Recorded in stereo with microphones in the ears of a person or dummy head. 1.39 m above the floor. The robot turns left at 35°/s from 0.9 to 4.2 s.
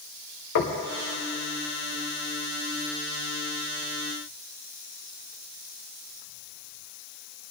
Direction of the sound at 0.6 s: 60° left (ahead or behind).